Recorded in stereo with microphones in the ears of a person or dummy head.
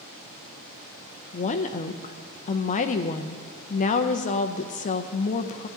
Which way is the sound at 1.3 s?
35° left (ahead or behind).